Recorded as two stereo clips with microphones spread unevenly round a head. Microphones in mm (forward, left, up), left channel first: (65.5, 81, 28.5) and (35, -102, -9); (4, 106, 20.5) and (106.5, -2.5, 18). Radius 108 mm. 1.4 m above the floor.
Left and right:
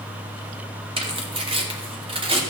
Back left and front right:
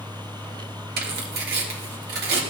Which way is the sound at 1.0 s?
35° right.